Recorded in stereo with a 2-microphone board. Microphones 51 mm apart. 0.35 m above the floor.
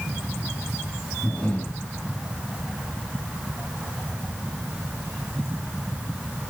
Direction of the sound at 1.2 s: 20° left (ahead or behind).